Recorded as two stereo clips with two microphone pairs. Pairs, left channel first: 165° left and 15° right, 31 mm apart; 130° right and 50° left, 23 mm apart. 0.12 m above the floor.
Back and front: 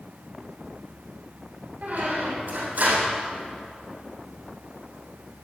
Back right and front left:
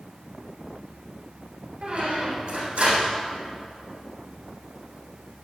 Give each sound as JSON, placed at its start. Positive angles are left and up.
{"t": 1.8, "sound": "a squeak", "azimuth_deg": 10, "distance_m": 3.5}